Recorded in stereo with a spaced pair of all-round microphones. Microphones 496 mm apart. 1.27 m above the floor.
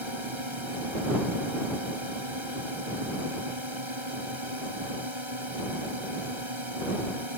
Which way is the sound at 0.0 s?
70° right (ahead or behind).